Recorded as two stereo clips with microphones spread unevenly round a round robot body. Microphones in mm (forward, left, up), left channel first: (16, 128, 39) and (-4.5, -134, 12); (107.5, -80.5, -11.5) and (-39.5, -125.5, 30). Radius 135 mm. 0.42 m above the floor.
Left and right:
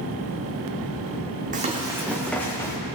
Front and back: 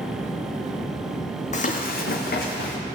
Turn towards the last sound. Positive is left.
turn(degrees=10)